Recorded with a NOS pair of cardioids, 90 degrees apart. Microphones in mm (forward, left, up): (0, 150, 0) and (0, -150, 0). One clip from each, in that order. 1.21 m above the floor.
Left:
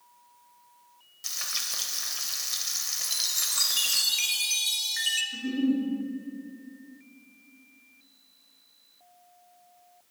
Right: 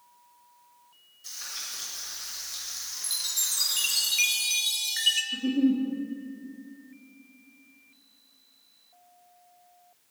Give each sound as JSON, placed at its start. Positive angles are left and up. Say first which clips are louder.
{"t": 1.2, "sound": "frying", "louder": "left 6 dB", "azimuth_deg": 65, "distance_m": 0.9}
{"t": 3.0, "sound": "a chime", "louder": "even", "azimuth_deg": -10, "distance_m": 0.6}
{"t": 5.3, "sound": "a giggle", "louder": "right 2 dB", "azimuth_deg": -55, "distance_m": 1.2}